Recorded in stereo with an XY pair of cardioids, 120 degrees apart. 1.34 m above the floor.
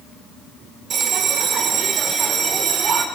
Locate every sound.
0.9 s a bell: 55° right, 1.3 m